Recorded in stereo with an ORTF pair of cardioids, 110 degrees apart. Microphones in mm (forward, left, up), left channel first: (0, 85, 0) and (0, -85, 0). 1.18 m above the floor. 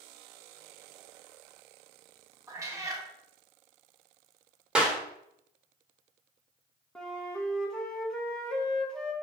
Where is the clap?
5° right, 1.4 m.